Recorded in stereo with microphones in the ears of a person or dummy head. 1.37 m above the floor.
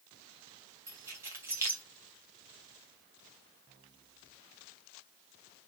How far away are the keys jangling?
About 1.3 m.